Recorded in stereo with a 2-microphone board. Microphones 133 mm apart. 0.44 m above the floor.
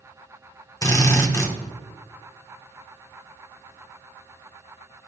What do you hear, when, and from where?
0.8 s a drill: 25° left (ahead or behind), 0.9 m